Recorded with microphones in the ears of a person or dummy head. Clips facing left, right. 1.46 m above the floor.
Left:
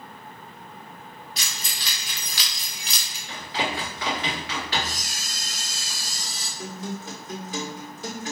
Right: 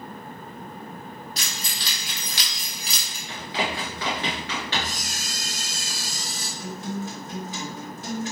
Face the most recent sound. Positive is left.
turn(degrees=35)  # may be behind; listen again after turning